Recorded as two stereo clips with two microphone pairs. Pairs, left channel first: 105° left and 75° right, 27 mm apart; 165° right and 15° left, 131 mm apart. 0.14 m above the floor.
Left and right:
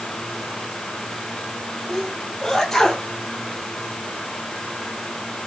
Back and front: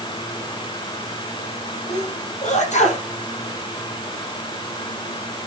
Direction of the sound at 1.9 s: 175° left.